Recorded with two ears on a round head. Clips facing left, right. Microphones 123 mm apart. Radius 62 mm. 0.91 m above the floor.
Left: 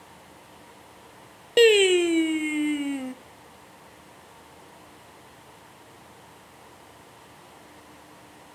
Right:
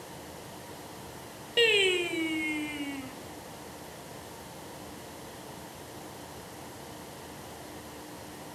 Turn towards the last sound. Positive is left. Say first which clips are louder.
# left 10 dB
turn(degrees=50)  # may be behind; listen again after turning